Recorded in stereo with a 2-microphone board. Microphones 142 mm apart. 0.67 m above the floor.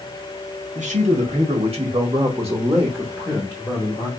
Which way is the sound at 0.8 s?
55° right (ahead or behind).